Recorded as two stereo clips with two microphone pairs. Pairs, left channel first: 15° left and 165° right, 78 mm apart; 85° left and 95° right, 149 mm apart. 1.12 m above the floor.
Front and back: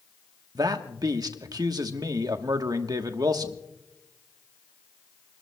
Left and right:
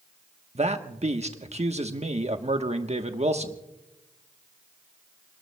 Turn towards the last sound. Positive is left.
turn(degrees=-135)